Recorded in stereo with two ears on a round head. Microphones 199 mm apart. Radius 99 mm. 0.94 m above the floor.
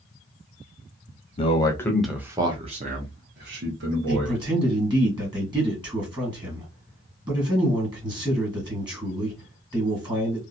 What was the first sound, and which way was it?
A man speaking, 30° left (ahead or behind).